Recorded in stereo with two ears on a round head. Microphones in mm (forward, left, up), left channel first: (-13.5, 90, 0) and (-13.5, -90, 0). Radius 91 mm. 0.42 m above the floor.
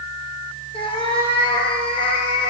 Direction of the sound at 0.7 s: 25° left (ahead or behind).